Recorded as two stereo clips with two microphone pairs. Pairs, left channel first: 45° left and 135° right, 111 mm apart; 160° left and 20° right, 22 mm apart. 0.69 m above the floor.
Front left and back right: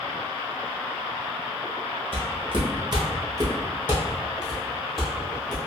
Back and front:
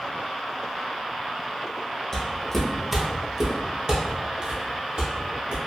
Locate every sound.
2.1 s footsteps: 130° right, 1.1 m; by 5.6 s 40° right, 1.7 m